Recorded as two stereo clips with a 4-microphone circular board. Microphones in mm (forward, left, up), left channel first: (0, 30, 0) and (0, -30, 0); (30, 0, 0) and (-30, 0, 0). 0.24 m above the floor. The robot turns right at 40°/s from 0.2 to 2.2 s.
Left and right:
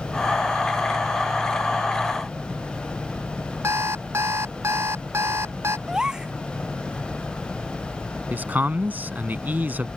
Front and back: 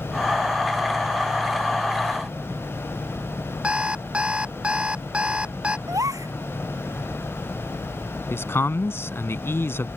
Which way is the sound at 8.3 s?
35° right.